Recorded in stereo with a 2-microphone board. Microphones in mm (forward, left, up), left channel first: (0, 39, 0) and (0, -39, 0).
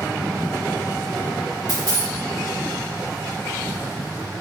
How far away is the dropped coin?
About 1.6 m.